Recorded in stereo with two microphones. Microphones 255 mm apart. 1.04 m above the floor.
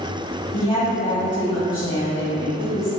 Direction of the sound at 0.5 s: 50° left (ahead or behind).